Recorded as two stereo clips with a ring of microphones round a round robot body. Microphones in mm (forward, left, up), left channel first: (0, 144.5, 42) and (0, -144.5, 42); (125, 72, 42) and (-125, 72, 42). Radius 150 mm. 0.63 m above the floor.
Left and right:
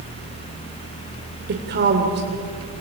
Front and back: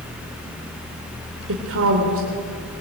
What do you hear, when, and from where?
1.5 s a woman speaking: 140° right, 2.5 m